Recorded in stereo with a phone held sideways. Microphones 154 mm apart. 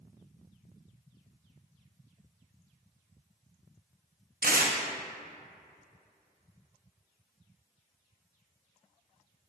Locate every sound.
4.4 s tearing paper: 70° right (ahead or behind), 0.7 m